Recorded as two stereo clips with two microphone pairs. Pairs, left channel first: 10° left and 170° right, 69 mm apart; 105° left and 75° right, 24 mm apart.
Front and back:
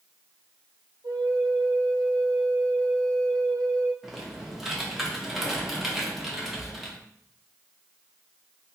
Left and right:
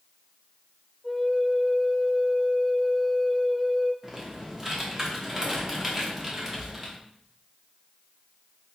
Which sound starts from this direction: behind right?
A flute, at 1.0 s.